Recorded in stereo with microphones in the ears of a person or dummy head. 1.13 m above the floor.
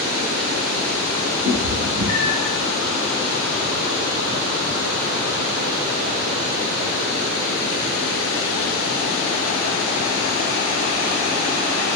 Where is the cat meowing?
65° right (ahead or behind), 2 m; by 2.5 s 45° right (ahead or behind), 1.8 m.